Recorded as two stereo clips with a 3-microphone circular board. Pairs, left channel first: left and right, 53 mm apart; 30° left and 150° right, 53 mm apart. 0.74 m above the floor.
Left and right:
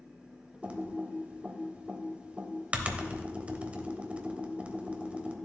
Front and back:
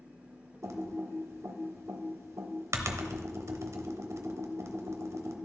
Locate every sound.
0.6 s typing on a keyboard: 150° right, 0.8 m